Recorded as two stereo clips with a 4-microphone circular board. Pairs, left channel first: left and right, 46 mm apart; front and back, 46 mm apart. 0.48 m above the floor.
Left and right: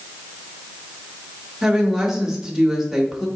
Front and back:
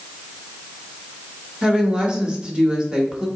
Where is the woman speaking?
160° right, 0.8 m.